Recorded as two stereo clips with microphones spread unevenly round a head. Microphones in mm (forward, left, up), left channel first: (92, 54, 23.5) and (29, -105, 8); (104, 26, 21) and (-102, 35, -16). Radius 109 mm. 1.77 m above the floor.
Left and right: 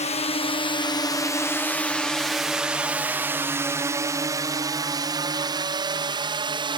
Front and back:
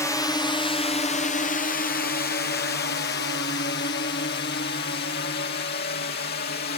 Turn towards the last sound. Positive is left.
turn(degrees=-55)